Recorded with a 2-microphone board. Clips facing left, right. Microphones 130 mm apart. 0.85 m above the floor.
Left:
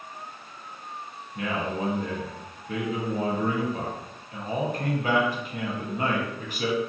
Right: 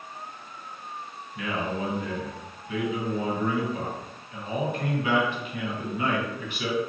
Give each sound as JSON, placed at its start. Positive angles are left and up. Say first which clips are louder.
{"t": 1.4, "sound": "a man speaking", "louder": "left 1 dB", "side_deg": 40, "distance_m": 0.8}